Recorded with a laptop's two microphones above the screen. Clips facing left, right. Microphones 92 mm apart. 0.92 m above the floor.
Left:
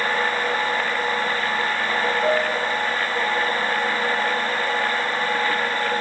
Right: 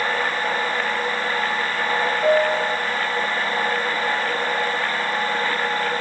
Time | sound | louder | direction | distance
2.2 | a piano | right 3 dB | 25° right (ahead or behind) | 1.4 m